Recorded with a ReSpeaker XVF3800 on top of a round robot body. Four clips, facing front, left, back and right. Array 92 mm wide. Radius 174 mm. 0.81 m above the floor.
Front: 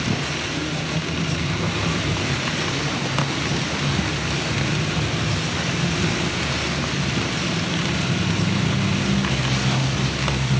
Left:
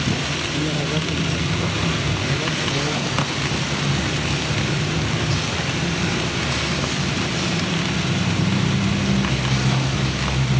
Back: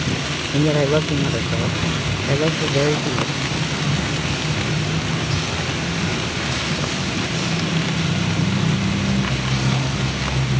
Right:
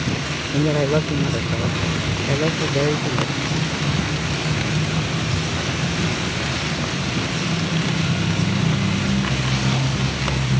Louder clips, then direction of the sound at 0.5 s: Right 8 dB, back 9 dB; 145° right.